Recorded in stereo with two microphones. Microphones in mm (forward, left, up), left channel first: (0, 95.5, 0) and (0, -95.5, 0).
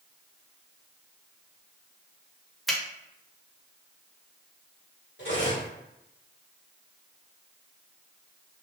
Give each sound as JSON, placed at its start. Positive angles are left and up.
{"t": 2.7, "sound": "a finger snap", "side_deg": 0, "distance_m": 1.1}
{"t": 5.2, "sound": "cutlery clinking", "side_deg": 75, "distance_m": 1.7}